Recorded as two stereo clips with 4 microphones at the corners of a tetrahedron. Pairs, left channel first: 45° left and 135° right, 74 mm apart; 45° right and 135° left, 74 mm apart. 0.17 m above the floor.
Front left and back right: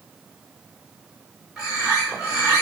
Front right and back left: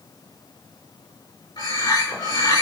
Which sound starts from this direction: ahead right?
A bird, at 1.6 s.